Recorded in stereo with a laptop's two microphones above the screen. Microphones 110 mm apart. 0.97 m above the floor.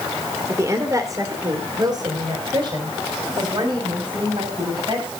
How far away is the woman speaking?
About 2.5 m.